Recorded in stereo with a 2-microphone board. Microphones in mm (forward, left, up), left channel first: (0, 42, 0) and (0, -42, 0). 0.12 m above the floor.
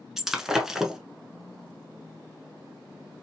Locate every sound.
0.2 s breaking glass: 5° right (ahead or behind), 0.7 m